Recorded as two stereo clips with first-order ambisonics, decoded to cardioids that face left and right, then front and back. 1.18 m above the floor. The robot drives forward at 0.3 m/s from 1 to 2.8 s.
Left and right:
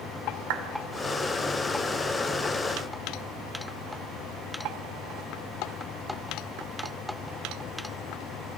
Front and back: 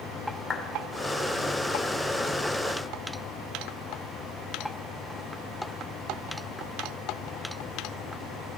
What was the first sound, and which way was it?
A clap, 75° right.